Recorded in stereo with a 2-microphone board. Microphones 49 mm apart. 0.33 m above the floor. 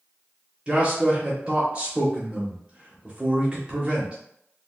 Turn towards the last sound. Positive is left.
turn(degrees=-20)  # may be behind; listen again after turning